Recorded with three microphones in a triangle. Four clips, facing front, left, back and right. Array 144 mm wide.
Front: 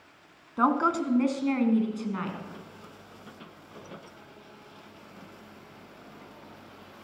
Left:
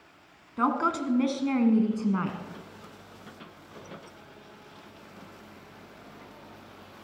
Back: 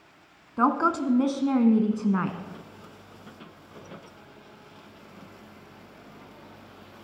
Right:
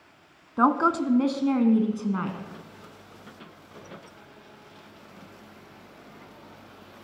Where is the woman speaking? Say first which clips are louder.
Right 5 dB, back 1 dB; 105° right, 1.3 m; by 2.4 s straight behind, 1.5 m.